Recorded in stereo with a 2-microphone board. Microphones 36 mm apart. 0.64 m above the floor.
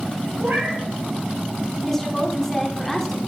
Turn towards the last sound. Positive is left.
turn(degrees=10)  # may be behind; listen again after turning